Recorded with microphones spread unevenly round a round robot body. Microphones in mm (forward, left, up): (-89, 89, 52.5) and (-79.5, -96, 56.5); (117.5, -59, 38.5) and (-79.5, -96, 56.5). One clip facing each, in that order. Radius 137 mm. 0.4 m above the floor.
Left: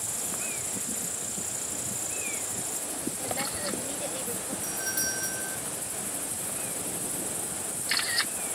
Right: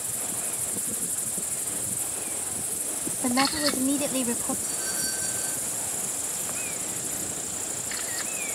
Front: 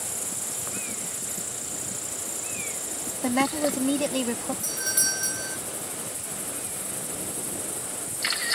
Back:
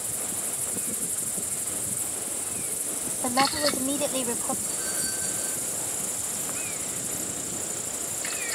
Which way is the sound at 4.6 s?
35° left.